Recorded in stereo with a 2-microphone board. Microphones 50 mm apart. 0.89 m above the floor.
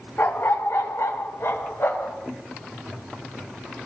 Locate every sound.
0.2 s a dog barking: 55° left (ahead or behind), 1.1 m; by 2.2 s 50° left (ahead or behind), 1.9 m